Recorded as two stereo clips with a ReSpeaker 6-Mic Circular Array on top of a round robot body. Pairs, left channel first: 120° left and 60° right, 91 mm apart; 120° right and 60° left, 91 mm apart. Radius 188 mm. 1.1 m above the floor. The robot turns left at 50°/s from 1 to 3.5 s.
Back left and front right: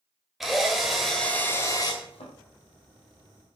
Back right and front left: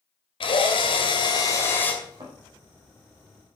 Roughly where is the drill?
Behind right.